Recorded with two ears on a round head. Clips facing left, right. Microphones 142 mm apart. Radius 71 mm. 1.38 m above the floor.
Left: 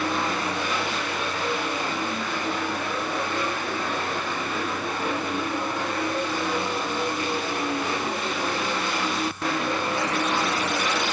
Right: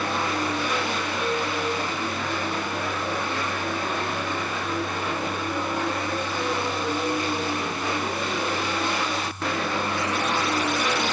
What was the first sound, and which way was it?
Only background noise.